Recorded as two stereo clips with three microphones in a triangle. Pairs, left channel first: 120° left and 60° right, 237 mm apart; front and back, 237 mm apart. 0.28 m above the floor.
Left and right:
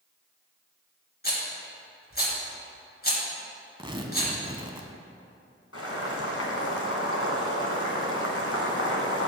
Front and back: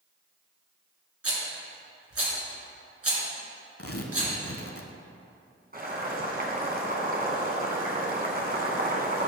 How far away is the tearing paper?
About 0.8 m.